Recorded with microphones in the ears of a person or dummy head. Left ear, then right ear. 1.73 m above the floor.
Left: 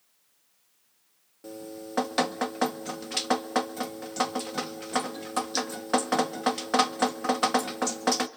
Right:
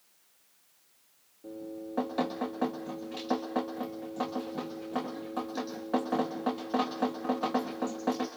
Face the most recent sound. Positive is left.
turn(degrees=55)  # may be behind; listen again after turning